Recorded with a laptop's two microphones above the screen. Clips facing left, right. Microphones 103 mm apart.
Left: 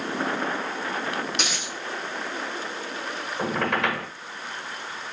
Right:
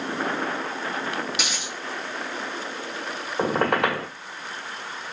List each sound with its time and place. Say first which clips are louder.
1.3 s a dropped coin: left 1 dB; 5° right (ahead or behind), 2.5 m
3.4 s a squeak: right 4 dB; 55° right (ahead or behind), 1.4 m